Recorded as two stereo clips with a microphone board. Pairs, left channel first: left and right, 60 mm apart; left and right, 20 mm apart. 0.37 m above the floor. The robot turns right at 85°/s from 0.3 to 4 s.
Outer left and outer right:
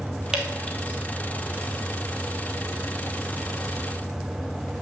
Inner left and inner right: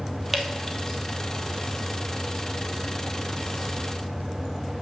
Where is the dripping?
10° right (ahead or behind), 1.7 m; by 1.0 s 45° left (ahead or behind), 1.7 m.